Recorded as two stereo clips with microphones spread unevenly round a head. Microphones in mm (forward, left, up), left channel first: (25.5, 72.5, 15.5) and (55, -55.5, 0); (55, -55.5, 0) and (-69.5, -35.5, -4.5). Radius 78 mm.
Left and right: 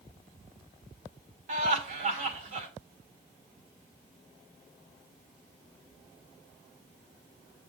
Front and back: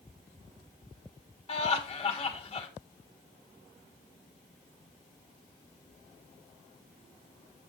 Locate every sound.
1.5 s laughter: 55° right, 2 m